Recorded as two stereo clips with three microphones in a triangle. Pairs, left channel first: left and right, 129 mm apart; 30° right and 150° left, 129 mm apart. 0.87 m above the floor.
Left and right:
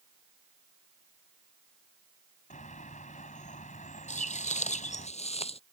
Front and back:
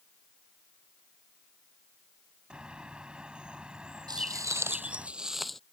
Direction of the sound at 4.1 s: 95° left.